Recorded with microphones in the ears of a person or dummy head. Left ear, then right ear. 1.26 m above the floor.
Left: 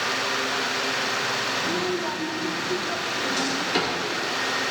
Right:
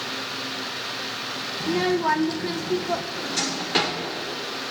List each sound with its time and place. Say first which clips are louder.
1.6 s a child speaking: right 2 dB; 65° right (ahead or behind), 0.6 m
3.1 s a drawer: left 2 dB; 25° right (ahead or behind), 2.5 m